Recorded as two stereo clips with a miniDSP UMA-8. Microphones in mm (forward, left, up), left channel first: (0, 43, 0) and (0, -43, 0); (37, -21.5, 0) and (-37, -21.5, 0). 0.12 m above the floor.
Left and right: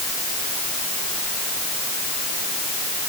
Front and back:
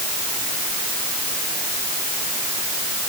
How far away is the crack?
I don't hear a crack.